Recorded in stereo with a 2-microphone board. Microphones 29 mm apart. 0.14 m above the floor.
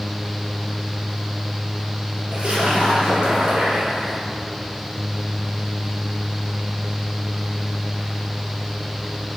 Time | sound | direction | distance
2.3 | a splash | 40° right (ahead or behind) | 3 m